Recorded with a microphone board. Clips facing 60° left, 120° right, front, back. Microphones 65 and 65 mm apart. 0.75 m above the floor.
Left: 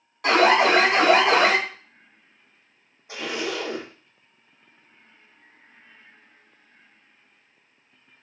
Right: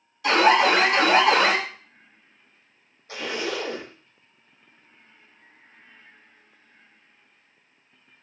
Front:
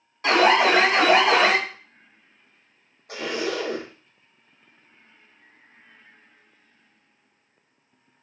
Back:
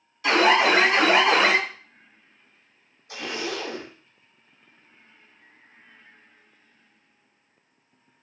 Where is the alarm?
45° left, 3.5 m.